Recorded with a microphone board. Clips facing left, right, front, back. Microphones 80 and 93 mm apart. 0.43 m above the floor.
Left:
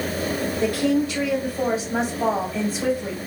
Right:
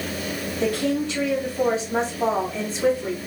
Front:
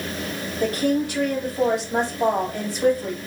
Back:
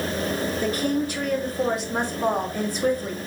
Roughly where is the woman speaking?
Ahead.